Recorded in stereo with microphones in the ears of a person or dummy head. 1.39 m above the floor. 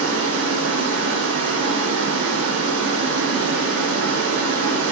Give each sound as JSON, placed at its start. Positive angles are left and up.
{"t": 0.0, "sound": "running water", "side_deg": -75, "distance_m": 0.9}